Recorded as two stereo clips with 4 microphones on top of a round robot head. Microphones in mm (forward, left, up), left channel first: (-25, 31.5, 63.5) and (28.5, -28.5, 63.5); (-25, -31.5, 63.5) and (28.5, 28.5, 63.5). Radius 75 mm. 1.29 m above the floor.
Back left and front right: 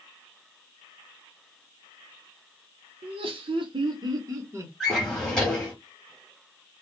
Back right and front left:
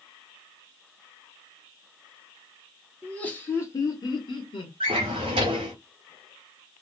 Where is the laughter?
50° right, 0.9 m; by 4.7 s 110° right, 1.0 m.